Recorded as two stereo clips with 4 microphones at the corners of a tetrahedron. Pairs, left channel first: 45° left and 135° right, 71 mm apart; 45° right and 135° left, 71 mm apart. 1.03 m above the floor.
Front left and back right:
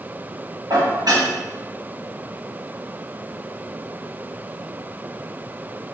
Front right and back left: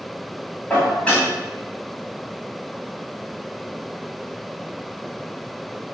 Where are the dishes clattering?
120° right, 1.1 m.